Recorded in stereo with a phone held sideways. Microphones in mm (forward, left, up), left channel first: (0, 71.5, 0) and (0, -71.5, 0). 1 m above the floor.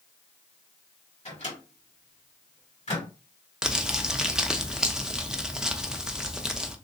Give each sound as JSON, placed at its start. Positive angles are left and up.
{"t": 1.2, "sound": "a microwave", "side_deg": 50, "distance_m": 1.9}
{"t": 3.6, "sound": "crumpling", "side_deg": -5, "distance_m": 0.5}